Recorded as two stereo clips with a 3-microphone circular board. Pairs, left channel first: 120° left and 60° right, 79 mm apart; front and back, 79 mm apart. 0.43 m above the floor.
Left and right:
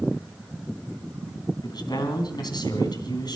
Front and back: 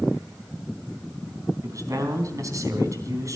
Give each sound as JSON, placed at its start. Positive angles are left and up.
{"t": 1.6, "sound": "a man speaking", "azimuth_deg": 140, "distance_m": 3.5}